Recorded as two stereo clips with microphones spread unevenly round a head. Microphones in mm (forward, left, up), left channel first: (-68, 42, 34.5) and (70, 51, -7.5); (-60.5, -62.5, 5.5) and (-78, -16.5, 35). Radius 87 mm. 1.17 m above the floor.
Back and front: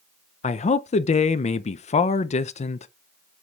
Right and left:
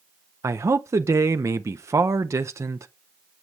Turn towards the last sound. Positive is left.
turn(degrees=140)